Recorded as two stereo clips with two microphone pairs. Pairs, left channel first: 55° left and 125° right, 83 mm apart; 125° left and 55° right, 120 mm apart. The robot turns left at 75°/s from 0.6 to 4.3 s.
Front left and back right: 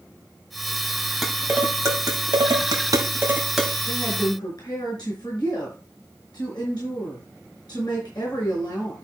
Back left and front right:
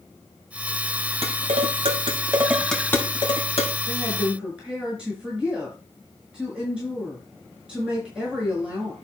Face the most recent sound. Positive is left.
turn(degrees=25)